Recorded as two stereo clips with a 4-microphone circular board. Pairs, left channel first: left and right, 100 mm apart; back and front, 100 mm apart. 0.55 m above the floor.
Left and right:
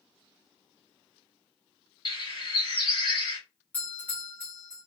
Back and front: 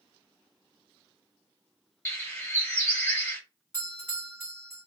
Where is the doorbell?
145° left, 1.5 m.